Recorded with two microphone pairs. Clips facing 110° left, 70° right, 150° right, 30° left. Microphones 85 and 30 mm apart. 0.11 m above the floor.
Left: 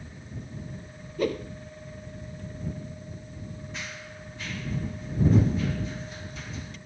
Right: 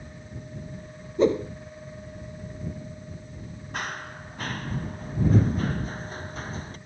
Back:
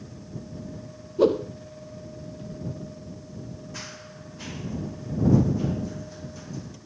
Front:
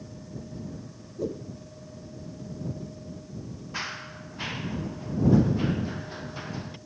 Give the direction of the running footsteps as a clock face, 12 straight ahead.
1 o'clock.